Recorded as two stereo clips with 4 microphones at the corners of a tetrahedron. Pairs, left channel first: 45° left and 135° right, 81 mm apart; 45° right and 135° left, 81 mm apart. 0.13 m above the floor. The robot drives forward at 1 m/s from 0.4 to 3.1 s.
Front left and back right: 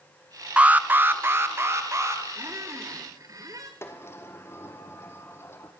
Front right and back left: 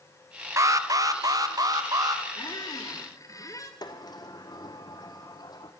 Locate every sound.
0.6 s an alarm: 155° left, 1.0 m; by 2.2 s 175° left, 2.5 m
2.4 s a squeak: 75° right, 3 m; by 3.7 s 90° right, 3 m
3.8 s a sliding door: 10° right, 2.5 m